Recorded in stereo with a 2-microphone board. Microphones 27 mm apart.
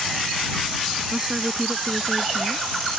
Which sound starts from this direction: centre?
A woman speaking, at 1.1 s.